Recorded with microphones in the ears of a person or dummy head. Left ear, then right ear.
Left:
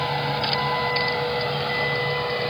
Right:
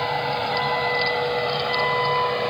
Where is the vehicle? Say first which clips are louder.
Right 1 dB; 25° right (ahead or behind); by 2.5 s 30° right (ahead or behind).